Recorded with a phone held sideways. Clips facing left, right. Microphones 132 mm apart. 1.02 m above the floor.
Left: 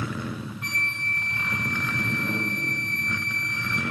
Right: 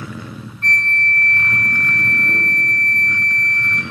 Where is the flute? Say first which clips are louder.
Right 11 dB; 10° left (ahead or behind), 0.8 m.